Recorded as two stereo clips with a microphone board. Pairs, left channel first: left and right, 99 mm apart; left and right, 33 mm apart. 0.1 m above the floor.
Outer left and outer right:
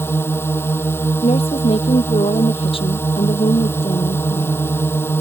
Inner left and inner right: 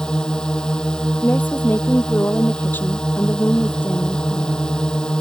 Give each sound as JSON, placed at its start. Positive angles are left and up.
{"t": 0.0, "sound": "a drone", "side_deg": 20}
{"t": 1.2, "sound": "a woman speaking", "side_deg": 65}